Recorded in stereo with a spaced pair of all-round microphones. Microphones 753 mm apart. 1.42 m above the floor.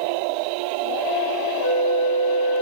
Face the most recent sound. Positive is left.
turn(degrees=20)  # may be behind; listen again after turning